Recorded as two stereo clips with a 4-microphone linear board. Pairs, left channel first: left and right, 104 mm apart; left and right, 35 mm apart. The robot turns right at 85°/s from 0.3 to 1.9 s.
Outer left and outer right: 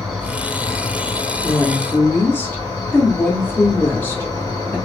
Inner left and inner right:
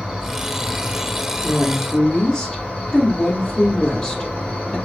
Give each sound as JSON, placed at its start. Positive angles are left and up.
{"t": 0.0, "sound": "an insect", "azimuth_deg": 0, "distance_m": 1.5}
{"t": 1.4, "sound": "a woman speaking", "side_deg": 15, "distance_m": 0.6}